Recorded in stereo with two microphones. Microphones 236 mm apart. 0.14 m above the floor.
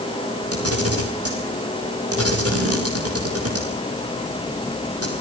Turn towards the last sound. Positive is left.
turn(degrees=-80)